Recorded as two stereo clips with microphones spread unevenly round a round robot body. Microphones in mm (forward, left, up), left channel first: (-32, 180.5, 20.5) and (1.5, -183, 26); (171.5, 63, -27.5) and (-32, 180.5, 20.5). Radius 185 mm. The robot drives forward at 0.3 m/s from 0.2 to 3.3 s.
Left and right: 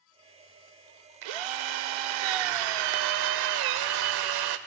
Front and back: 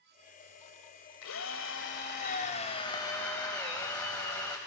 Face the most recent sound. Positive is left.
turn(degrees=-115)